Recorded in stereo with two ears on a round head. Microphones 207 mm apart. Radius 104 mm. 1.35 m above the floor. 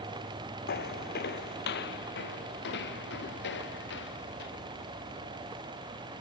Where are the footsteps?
45° left (ahead or behind); by 4.5 s 50° left (ahead or behind).